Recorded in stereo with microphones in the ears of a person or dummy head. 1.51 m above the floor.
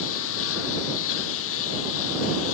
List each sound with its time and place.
0.0 s a lawn mower: 80° left